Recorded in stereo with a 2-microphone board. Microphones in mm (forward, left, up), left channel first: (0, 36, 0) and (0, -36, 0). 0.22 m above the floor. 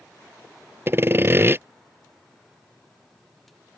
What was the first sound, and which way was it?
Sawing, 35° right (ahead or behind).